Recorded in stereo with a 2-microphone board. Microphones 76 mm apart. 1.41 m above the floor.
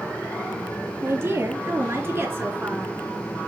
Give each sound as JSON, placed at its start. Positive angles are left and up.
{"t": 1.0, "sound": "a woman speaking", "side_deg": -35, "distance_m": 3.0}